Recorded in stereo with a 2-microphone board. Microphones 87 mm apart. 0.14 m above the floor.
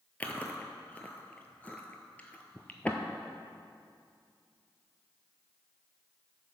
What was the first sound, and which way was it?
Chewing, 15° left (ahead or behind).